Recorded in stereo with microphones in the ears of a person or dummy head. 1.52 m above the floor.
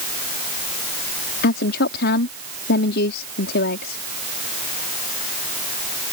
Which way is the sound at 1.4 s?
60° left (ahead or behind).